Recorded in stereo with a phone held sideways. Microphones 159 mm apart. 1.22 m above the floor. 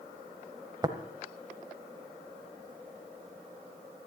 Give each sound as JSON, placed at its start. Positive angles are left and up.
{"t": 0.8, "sound": "tapping", "side_deg": -25, "distance_m": 1.2}